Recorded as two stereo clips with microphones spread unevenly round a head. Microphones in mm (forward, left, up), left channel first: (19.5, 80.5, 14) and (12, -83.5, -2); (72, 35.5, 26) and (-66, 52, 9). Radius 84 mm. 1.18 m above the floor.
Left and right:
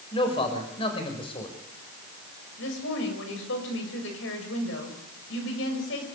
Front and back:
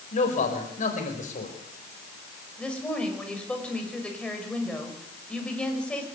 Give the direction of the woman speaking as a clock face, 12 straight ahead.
9 o'clock.